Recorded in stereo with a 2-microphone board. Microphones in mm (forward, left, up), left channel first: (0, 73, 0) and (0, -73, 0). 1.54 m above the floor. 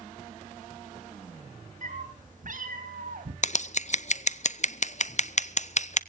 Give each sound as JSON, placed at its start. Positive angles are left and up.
{"t": 1.8, "sound": "a cat meowing", "side_deg": -60, "distance_m": 3.5}
{"t": 3.4, "sound": "scissors", "side_deg": 55, "distance_m": 0.5}